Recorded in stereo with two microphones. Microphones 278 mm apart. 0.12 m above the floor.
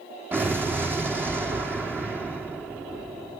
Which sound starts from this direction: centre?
An explosion, at 0.3 s.